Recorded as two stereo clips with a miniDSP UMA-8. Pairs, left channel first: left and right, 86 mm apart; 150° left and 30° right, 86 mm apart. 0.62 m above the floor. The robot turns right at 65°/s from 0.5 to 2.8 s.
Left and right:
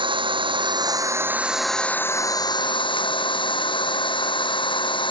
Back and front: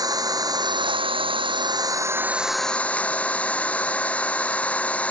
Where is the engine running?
75° right; by 5.1 s 75° left.